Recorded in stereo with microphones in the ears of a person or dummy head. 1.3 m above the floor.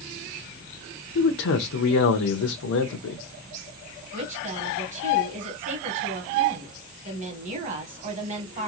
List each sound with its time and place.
1.1 s a man speaking: 80° left, 0.6 m
4.1 s a woman speaking: 40° right (ahead or behind), 1.2 m